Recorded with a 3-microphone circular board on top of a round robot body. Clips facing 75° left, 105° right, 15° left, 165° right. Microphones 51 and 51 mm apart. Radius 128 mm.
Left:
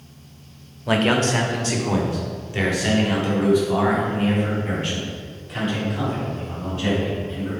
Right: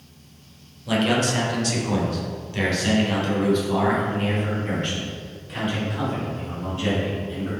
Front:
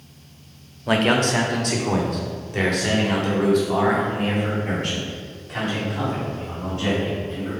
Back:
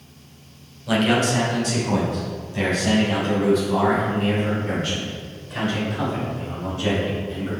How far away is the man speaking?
About 1.7 m.